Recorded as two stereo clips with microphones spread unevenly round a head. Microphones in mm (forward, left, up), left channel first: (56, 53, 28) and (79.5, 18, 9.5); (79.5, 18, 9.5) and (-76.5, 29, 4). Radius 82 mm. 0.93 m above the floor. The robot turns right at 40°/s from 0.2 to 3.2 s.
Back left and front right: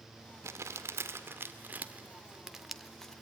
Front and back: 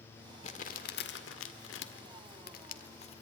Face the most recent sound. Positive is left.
turn(degrees=50)